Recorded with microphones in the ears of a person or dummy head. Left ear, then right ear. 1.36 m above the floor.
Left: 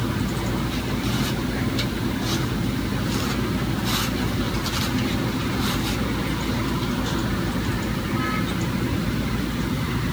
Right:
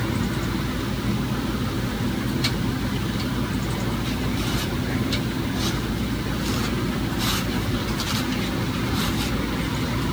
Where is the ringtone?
I don't hear a ringtone.